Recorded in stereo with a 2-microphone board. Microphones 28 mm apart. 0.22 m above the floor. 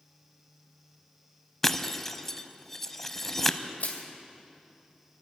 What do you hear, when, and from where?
1.6 s breaking glass: 10° left (ahead or behind), 0.6 m
3.8 s crushing: 70° left (ahead or behind), 2.5 m